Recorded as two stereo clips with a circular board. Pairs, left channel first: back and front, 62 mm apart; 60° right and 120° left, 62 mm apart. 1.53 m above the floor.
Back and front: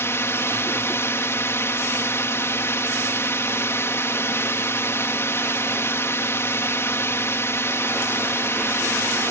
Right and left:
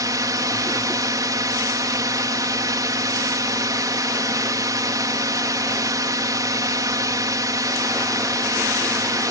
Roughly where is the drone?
Behind left.